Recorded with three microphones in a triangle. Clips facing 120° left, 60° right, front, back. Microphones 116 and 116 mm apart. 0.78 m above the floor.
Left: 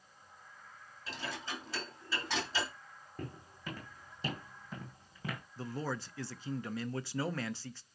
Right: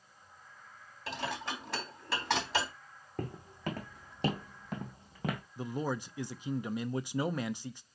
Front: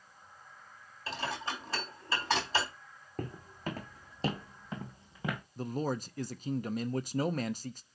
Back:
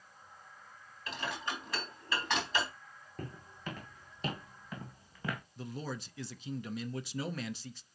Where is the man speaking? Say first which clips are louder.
Right 2 dB, front 7 dB; 10° left, 0.6 m.